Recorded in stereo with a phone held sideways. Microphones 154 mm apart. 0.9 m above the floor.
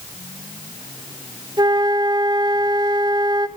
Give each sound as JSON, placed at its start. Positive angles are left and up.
{"t": 1.6, "sound": "a flute", "side_deg": -25, "distance_m": 1.1}